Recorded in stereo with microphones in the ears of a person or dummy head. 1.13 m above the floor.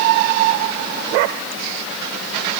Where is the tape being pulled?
No tape being pulled in this recording.